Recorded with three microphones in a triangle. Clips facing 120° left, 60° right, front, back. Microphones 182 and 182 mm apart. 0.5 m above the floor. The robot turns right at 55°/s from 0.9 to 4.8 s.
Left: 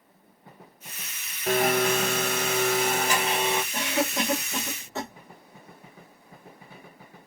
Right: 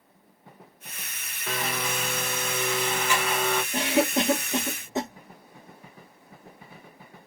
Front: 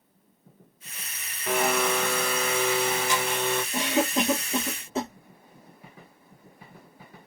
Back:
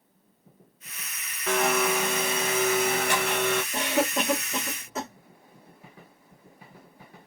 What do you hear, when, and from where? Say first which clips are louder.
1.5 s a blender: left 9 dB, even; 75° left, 0.6 m; by 3.6 s 165° right, 0.6 m
3.7 s a cough: right 4 dB, front 1 dB; 70° right, 1.0 m; by 5.1 s 10° right, 1.0 m